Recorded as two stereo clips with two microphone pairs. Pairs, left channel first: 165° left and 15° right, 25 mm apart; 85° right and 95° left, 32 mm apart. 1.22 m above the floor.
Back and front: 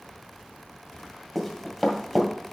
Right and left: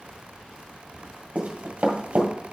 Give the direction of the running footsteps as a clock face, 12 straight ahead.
9 o'clock.